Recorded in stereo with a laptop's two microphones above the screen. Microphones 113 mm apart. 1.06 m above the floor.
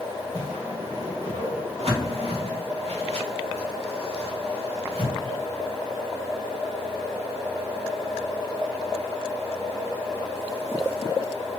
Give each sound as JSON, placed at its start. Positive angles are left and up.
{"t": 0.3, "sound": "a whoosh", "side_deg": -65, "distance_m": 1.7}